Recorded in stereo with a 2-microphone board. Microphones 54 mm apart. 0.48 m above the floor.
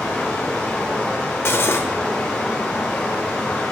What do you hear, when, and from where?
0.0 s running water: 10° left (ahead or behind), 4 m
1.4 s cutlery clinking: 50° left (ahead or behind), 0.8 m